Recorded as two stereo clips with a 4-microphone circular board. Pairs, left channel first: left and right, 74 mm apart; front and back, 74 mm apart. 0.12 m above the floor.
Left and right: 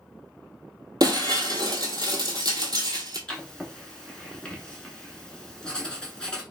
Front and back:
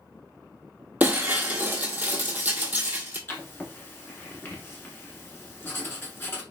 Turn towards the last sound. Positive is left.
turn(degrees=20)